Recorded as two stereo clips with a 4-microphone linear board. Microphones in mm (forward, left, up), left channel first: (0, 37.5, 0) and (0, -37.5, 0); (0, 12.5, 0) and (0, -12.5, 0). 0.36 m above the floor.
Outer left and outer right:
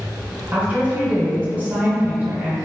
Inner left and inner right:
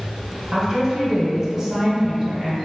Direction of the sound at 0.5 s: 25° right (ahead or behind).